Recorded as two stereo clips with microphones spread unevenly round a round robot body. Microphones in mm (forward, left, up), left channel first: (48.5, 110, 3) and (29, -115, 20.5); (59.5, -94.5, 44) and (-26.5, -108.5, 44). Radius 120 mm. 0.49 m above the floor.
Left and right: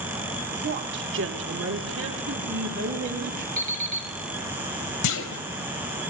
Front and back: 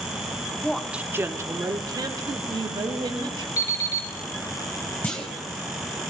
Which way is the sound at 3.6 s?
40° right.